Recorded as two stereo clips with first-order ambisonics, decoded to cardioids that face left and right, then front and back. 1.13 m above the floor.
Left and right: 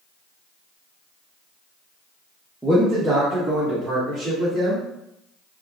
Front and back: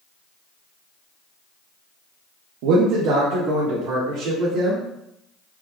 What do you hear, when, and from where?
2.6 s a man speaking: 175° right, 0.8 m; by 4.8 s 170° right, 2.5 m